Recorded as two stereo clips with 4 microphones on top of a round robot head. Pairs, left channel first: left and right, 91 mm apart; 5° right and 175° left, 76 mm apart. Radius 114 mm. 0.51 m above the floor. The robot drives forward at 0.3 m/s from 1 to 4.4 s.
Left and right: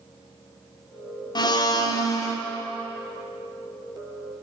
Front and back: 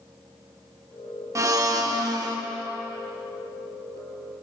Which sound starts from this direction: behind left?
A blender, at 1.4 s.